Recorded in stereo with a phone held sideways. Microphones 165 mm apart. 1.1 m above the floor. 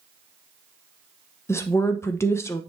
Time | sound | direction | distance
1.5 | a woman speaking | 15° left (ahead or behind) | 0.8 m